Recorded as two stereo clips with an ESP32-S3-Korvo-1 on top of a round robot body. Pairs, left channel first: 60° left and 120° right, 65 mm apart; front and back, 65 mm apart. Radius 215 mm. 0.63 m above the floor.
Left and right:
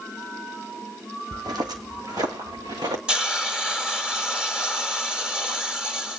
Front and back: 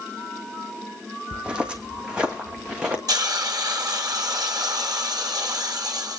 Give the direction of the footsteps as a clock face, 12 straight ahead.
3 o'clock.